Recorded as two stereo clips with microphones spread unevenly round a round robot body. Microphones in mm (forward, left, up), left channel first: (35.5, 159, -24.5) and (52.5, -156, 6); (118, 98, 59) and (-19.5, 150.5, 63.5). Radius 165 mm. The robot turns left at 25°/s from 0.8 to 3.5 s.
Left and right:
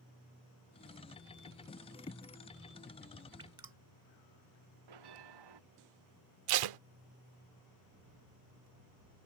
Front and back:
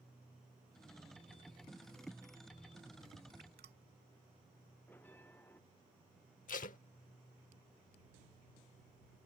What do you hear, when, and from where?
3.4 s dripping: 160° right
4.9 s a bell: 105° right
6.5 s tape being pulled: 70° right